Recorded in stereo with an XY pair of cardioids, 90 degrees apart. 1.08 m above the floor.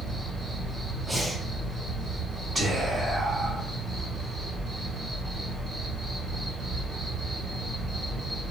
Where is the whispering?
40° right, 1.3 m.